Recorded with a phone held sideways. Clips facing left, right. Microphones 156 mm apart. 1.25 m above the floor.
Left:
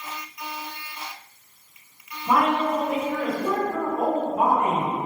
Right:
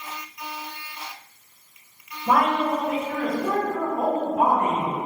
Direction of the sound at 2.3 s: 50° right (ahead or behind).